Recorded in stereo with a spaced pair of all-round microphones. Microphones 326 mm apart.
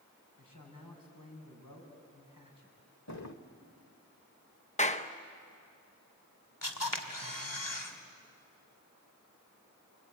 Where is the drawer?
55° left (ahead or behind), 1.3 m.